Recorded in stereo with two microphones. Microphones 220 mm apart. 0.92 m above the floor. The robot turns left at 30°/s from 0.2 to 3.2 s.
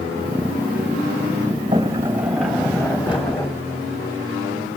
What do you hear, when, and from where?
1.7 s a sliding door: 160° right, 3.5 m; by 3.5 s 155° left, 3.5 m